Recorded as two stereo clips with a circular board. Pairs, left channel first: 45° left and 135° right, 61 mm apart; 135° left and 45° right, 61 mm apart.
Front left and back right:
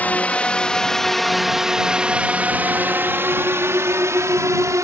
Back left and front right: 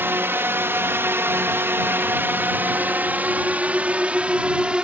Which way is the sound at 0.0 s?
10° right.